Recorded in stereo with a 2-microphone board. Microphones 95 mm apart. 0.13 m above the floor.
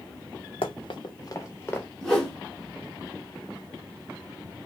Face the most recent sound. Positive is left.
turn(degrees=5)  # may be behind; listen again after turning